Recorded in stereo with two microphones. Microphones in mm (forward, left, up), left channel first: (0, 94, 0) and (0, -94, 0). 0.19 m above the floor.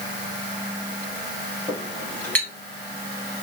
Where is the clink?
10° left (ahead or behind), 1.6 m.